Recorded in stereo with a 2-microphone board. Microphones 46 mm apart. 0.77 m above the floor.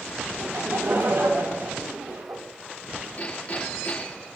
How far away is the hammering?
About 7.5 m.